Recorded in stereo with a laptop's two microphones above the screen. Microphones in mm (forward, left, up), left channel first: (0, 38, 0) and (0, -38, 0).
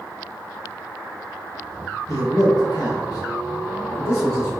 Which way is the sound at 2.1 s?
40° left (ahead or behind).